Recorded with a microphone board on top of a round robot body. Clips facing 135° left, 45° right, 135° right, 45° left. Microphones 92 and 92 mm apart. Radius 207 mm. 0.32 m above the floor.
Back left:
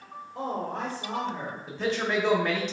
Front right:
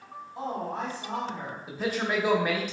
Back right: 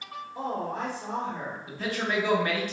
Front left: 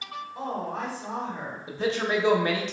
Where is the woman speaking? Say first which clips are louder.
Back left 1 dB, back right 1 dB; 160° left, 1.9 m.